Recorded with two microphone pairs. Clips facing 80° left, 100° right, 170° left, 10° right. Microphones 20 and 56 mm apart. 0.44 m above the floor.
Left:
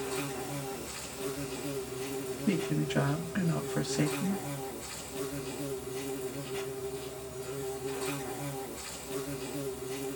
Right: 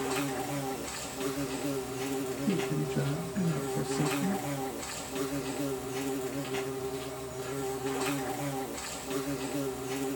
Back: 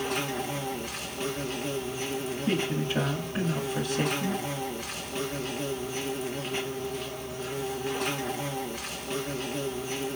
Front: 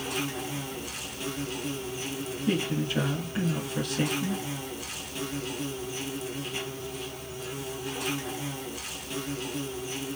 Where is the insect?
135° right, 3 m.